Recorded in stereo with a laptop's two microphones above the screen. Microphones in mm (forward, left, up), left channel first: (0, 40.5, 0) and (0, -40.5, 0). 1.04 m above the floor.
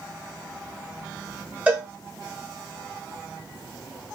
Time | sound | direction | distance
1.7 | a cowbell | 20° right (ahead or behind) | 0.9 m